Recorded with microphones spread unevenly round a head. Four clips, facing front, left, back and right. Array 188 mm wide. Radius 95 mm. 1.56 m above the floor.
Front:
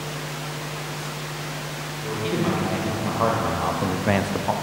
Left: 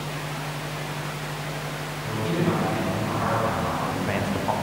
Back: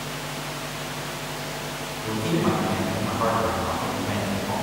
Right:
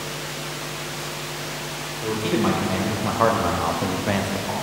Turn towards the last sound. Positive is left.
turn(degrees=20)